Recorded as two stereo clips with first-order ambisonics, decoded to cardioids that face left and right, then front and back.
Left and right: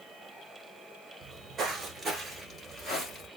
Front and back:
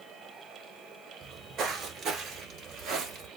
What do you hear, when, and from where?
1.2 s footsteps: 140° right, 1.7 m; by 3.3 s 145° left, 1.7 m